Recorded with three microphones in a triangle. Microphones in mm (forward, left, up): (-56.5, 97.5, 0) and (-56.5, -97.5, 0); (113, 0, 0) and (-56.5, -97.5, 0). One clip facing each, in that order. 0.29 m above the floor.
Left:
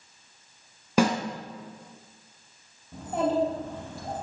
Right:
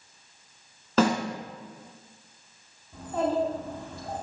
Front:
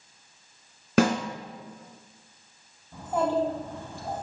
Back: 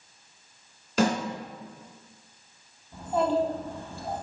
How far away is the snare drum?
About 2 m.